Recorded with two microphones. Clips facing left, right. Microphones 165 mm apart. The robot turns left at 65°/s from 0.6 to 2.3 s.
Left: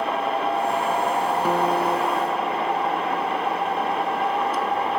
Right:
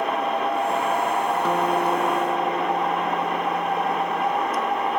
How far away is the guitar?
About 0.8 m.